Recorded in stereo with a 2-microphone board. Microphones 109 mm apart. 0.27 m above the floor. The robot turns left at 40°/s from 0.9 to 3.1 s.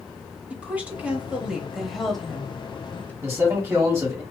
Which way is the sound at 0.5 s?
15° right (ahead or behind).